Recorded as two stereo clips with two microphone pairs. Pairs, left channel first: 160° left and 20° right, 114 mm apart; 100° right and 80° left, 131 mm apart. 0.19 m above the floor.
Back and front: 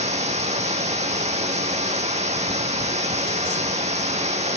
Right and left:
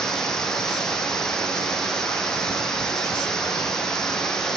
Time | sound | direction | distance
0.0 | running water | 10° right | 0.9 m